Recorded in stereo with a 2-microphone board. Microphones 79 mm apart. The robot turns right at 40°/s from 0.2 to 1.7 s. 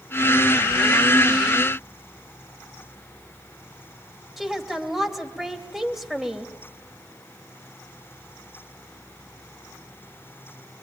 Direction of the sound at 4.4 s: 5° right (ahead or behind).